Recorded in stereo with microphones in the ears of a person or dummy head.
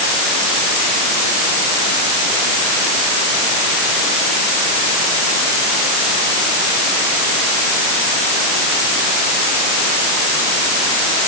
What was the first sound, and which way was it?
Only background noise.